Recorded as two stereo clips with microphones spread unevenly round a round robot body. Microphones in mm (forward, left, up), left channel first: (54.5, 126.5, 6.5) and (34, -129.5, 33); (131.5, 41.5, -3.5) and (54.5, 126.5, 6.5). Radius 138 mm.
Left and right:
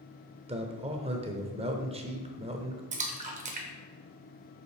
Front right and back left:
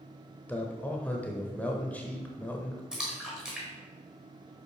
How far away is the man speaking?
About 0.9 m.